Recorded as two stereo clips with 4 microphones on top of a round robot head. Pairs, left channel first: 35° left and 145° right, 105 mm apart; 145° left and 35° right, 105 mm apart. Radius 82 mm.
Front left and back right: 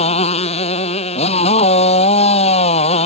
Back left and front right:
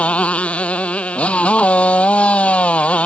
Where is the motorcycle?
65° left.